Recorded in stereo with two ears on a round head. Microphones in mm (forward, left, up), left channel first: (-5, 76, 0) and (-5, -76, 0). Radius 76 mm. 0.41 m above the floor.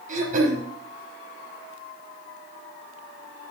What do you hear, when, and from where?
0.1 s throat clearing: 45° right (ahead or behind), 4.5 m